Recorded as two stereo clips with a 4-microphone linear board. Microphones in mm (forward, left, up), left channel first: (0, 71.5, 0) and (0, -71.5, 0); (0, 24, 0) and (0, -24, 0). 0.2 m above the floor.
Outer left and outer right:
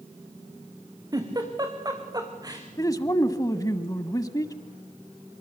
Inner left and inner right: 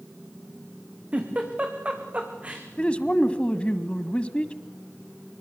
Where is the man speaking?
25° left (ahead or behind), 1.2 m.